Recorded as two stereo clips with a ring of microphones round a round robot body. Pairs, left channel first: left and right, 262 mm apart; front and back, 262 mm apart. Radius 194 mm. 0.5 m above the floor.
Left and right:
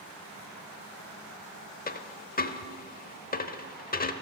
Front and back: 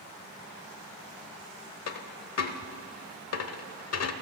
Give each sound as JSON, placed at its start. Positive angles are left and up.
{"t": 1.9, "sound": "a dropped coin", "azimuth_deg": 30, "distance_m": 0.9}